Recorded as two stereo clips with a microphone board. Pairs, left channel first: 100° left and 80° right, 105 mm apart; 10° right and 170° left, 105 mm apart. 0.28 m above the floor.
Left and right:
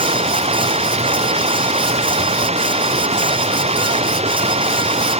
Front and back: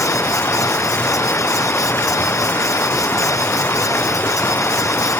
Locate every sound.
0.0 s running water: 80° right